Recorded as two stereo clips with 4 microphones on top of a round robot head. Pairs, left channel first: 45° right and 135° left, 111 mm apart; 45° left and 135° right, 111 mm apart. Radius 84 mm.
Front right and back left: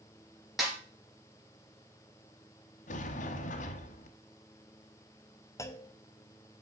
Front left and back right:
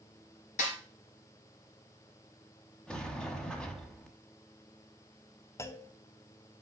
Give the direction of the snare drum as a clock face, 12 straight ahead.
10 o'clock.